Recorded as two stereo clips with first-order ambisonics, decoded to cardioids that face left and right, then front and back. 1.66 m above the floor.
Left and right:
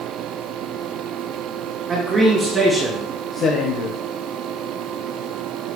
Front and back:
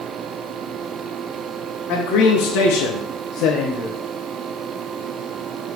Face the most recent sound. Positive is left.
turn(degrees=90)